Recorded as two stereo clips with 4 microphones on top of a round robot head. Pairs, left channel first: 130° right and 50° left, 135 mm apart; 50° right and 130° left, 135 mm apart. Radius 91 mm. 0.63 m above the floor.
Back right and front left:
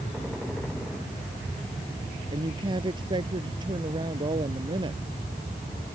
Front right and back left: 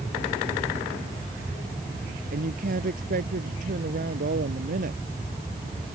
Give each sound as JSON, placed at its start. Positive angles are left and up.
{"t": 2.3, "sound": "a woman speaking", "azimuth_deg": 105}